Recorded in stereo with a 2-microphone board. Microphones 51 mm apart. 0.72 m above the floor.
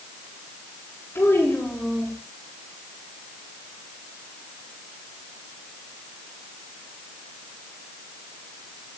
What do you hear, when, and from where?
1.1 s a child speaking: 60° left (ahead or behind), 8 m